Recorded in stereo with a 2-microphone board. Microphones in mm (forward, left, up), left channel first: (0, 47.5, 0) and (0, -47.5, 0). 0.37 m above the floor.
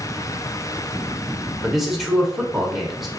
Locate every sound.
1.6 s a man speaking: 5° right (ahead or behind), 0.8 m